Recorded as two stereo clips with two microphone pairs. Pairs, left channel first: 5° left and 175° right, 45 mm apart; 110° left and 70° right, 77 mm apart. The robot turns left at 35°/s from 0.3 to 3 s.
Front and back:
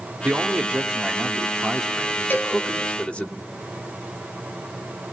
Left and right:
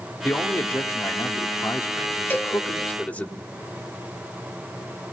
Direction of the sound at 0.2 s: 150° left.